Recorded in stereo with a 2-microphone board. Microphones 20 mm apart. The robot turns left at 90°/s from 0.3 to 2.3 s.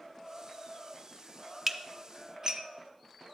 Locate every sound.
1.7 s dishes clattering: 15° right (ahead or behind), 0.6 m; by 2.7 s 35° right (ahead or behind), 0.6 m